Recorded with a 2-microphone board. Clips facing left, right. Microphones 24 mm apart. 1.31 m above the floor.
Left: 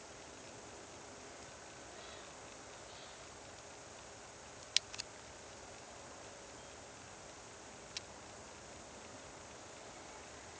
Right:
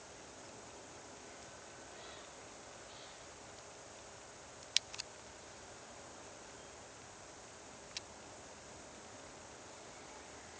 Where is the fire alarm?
No fire alarm in this recording.